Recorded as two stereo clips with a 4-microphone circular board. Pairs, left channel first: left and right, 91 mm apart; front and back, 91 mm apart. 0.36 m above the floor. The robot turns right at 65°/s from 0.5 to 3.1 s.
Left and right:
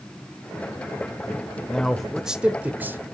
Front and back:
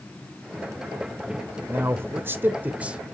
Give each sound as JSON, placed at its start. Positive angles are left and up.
{"t": 1.7, "sound": "a man speaking", "azimuth_deg": 160, "distance_m": 0.9}